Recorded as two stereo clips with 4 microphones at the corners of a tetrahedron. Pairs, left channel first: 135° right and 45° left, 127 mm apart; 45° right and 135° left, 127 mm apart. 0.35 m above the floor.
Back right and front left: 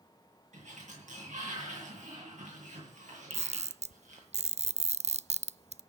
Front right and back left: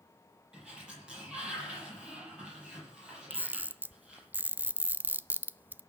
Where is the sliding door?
55° left, 9.5 m.